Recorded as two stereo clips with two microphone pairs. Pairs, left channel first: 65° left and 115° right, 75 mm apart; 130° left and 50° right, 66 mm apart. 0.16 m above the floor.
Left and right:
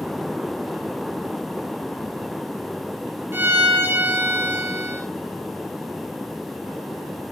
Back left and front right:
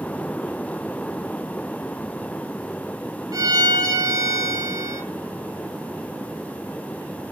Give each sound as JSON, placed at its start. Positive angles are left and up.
{"t": 3.3, "sound": "a violin", "azimuth_deg": -55, "distance_m": 3.0}